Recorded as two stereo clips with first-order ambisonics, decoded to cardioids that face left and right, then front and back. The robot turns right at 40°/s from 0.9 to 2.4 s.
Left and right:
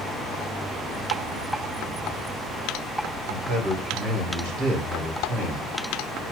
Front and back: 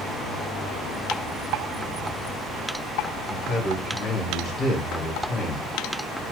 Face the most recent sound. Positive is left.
turn(degrees=-70)